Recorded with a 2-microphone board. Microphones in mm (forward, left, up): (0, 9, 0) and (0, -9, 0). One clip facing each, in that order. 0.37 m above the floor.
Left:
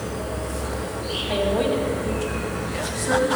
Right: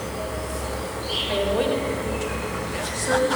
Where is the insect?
65° right (ahead or behind), 3 m.